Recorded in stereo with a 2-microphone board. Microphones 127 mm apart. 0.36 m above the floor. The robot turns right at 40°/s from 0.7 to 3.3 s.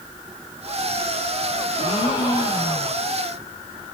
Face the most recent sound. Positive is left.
turn(degrees=-175)